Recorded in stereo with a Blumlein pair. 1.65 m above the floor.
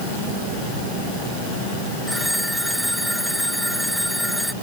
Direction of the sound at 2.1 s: Straight ahead.